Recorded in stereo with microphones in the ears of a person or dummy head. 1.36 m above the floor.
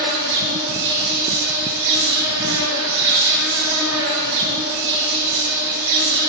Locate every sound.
0.0 s an insect: 55° right (ahead or behind), 1.7 m